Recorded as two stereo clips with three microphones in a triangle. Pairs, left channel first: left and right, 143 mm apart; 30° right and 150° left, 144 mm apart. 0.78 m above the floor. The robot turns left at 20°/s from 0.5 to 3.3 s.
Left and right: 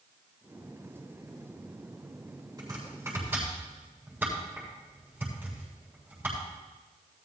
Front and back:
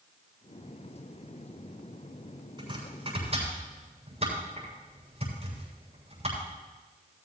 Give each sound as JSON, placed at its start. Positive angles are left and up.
{"t": 2.6, "sound": "chopping", "azimuth_deg": -155, "distance_m": 7.0}